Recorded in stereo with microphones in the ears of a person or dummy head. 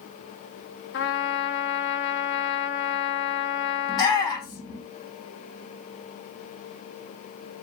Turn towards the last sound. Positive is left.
turn(degrees=20)  # may be behind; listen again after turning